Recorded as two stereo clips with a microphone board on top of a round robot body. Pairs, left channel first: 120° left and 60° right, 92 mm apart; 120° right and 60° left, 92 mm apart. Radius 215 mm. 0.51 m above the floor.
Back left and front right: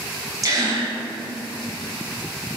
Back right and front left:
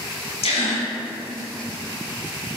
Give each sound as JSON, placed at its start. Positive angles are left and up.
{"t": 0.4, "sound": "a gasp", "azimuth_deg": -115, "distance_m": 0.9}